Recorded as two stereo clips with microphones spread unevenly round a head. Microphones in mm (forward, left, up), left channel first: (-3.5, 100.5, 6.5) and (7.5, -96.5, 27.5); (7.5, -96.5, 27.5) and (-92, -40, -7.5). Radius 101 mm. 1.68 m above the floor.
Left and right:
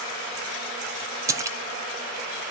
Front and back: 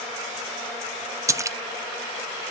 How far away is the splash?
About 0.6 m.